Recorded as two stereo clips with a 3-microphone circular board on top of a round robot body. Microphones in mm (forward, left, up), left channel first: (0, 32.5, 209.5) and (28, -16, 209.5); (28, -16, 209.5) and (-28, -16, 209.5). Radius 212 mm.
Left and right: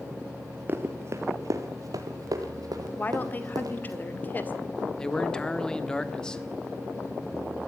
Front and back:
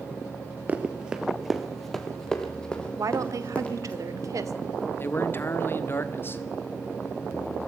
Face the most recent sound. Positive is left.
turn(degrees=45)